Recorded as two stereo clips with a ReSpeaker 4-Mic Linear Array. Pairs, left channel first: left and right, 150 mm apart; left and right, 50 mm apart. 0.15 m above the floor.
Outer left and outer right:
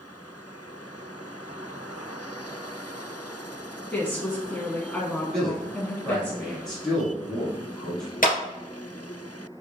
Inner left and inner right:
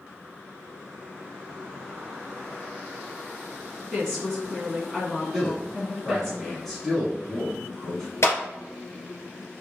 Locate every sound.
3.9 s a woman speaking: 10° left (ahead or behind), 1.2 m
5.3 s a man speaking: 5° left (ahead or behind), 1.1 m
8.2 s a clap: 65° left (ahead or behind), 1.8 m